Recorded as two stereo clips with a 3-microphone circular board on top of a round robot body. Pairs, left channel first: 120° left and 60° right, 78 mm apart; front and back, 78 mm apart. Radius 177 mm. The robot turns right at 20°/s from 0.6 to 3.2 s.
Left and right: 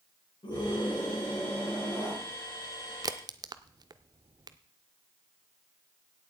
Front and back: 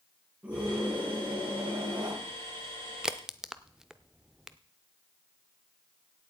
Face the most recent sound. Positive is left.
turn(degrees=-95)